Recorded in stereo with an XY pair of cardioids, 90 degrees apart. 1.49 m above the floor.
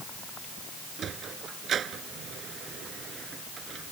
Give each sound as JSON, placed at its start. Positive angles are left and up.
{"t": 1.0, "sound": "a sliding door", "azimuth_deg": -65}